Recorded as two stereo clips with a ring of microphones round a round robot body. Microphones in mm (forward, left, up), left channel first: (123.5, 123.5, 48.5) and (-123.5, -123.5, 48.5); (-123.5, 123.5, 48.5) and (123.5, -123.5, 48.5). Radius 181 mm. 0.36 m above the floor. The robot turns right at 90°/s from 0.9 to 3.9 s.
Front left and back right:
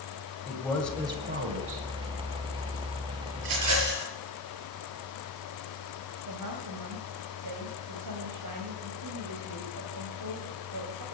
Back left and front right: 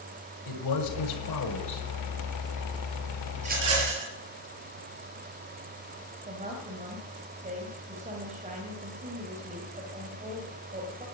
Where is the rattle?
120° right, 6 m; by 4.1 s 75° right, 6 m.